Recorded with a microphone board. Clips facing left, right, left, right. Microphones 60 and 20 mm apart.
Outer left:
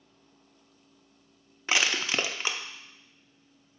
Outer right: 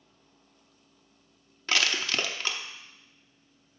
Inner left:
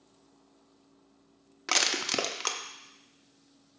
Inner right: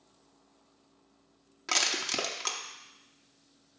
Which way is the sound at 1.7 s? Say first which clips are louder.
Outer left 1 dB, inner left 2 dB; 15° left (ahead or behind).